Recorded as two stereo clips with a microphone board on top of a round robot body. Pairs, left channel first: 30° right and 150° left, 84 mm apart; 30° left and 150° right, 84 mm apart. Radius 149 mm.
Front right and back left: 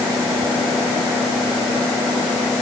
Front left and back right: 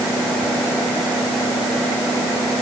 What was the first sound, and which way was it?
Only background noise.